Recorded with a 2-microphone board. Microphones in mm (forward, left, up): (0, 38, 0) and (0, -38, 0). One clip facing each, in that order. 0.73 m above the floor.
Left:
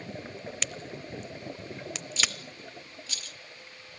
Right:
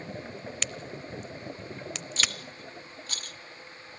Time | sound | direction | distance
0.6 | a crack | centre (ahead or behind) | 0.5 m
2.2 | a rattle | 50° right (ahead or behind) | 1.0 m